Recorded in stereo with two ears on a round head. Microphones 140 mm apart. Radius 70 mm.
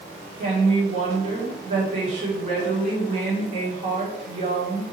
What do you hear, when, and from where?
0.4 s a woman speaking: 45° right (ahead or behind), 3 m